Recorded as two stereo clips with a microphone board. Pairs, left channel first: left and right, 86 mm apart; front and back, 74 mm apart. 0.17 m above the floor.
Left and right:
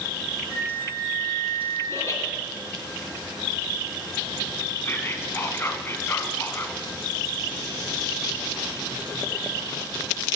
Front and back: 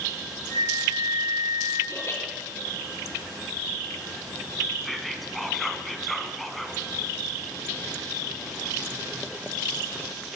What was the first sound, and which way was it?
A flute, 15° right.